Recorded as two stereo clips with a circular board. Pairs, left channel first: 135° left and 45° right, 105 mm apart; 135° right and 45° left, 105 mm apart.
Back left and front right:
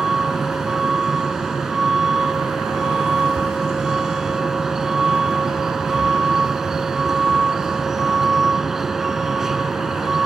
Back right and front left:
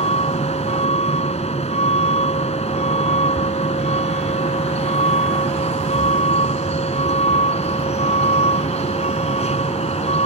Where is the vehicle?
130° right.